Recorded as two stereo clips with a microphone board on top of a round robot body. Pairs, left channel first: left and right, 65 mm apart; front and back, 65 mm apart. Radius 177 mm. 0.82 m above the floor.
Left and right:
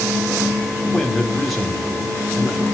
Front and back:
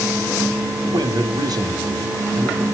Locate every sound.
0.8 s a man speaking: straight behind, 1.9 m